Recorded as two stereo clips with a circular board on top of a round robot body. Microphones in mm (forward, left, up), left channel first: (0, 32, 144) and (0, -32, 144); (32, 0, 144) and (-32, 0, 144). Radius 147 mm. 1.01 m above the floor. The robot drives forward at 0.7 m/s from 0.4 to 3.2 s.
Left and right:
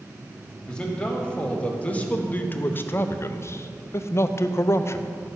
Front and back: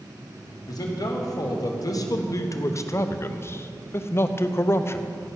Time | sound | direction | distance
0.7 | a man speaking | 15° left | 2.5 m